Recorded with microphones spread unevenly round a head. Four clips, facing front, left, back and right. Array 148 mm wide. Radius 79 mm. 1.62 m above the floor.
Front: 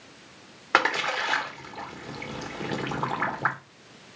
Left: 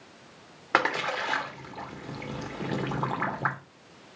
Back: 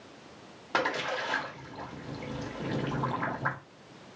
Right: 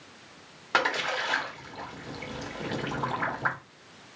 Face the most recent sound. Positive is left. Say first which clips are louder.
# left 1 dB, front 5 dB
turn(degrees=0)